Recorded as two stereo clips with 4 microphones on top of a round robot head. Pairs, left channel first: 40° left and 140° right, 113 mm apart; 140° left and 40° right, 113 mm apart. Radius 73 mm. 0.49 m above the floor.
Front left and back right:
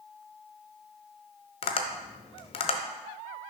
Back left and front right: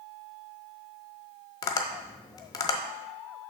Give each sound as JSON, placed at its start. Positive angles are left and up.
{"t": 1.6, "sound": "tapping", "azimuth_deg": 80, "distance_m": 0.7}